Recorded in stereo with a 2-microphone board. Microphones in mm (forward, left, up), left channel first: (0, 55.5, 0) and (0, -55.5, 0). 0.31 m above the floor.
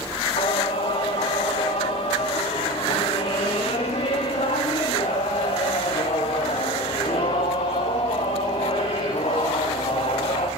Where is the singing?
80° left, 5 m.